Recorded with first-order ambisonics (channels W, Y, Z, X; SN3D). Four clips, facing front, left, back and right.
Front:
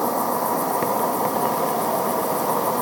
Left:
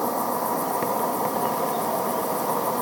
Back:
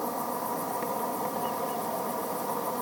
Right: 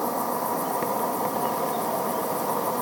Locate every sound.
0.0 s an insect: 10° left